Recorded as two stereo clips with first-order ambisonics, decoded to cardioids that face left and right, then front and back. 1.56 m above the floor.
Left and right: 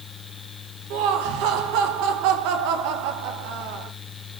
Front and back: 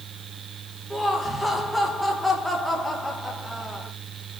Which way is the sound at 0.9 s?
85° right.